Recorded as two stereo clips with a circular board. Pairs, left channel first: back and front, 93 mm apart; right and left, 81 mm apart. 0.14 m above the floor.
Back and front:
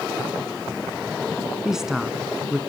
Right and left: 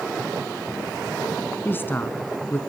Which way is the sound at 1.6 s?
80° right.